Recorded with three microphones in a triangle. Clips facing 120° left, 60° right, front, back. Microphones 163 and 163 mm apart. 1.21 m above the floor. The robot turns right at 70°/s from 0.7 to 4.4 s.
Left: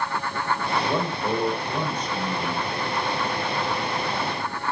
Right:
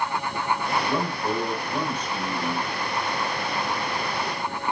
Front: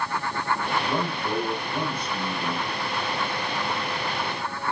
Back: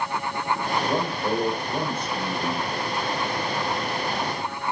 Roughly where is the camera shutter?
I don't hear a camera shutter.